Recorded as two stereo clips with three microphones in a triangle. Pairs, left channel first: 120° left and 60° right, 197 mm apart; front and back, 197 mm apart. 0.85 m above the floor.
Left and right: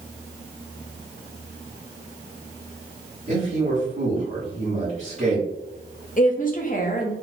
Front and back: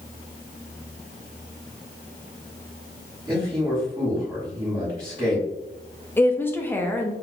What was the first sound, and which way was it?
A man speaking, 110° right.